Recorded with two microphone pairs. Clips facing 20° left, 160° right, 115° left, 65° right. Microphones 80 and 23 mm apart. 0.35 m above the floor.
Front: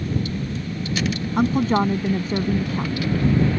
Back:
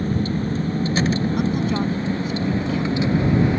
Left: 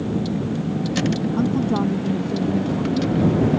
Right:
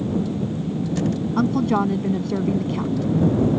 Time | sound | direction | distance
0.0 | a vehicle | 145° left | ?
1.4 | a woman speaking | 25° right | ?